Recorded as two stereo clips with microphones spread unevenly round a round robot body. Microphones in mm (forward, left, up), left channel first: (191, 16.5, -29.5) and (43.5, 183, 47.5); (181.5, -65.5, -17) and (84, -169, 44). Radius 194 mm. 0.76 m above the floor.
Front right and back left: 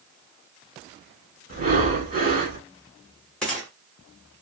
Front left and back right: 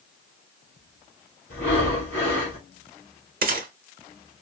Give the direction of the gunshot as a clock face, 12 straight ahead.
4 o'clock.